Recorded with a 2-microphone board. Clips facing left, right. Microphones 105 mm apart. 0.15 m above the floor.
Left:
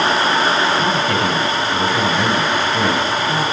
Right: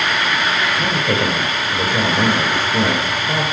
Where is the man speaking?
40° right (ahead or behind), 3 m.